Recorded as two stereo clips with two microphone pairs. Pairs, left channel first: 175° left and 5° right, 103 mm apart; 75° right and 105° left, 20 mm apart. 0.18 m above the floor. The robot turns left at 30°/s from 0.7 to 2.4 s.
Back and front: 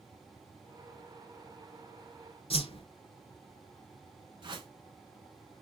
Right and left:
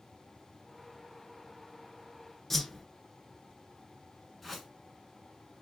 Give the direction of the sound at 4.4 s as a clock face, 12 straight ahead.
12 o'clock.